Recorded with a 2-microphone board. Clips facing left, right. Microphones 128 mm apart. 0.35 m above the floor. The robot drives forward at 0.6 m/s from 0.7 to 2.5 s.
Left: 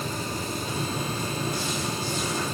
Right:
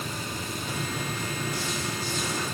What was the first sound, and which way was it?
Only background noise.